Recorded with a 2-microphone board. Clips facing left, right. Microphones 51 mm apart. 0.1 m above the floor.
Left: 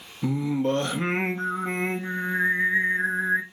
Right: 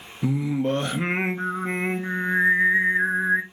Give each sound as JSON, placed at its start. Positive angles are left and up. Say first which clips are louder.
{"t": 0.2, "sound": "singing", "louder": "right 1 dB", "side_deg": -15, "distance_m": 0.7}